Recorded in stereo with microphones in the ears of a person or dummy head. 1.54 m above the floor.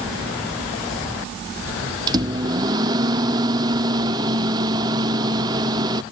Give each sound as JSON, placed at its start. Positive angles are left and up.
{"t": 2.1, "sound": "a microwave", "side_deg": -25, "distance_m": 0.6}